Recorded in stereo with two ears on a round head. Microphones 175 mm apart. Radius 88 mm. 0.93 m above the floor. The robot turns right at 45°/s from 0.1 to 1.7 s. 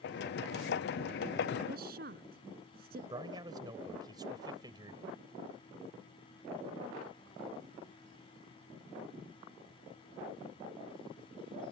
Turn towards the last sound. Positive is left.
turn(degrees=-20)  # may be behind; listen again after turning